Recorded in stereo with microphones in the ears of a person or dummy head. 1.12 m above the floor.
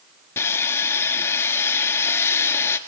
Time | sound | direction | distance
0.4 | sawing | 15° left (ahead or behind) | 1.5 m